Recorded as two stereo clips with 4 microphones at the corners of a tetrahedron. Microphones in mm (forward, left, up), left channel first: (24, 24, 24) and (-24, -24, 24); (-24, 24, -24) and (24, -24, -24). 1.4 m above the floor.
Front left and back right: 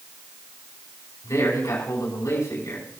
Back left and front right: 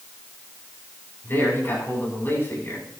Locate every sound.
1.2 s a man speaking: 80° left, 5 m